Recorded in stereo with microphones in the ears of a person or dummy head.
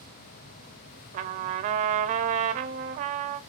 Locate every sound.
1.1 s a trumpet: 40° right (ahead or behind), 0.7 m